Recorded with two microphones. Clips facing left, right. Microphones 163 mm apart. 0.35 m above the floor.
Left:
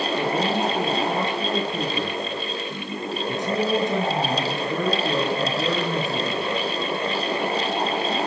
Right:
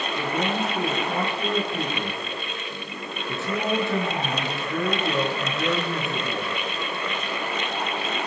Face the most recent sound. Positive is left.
turn(degrees=20)  # may be behind; listen again after turning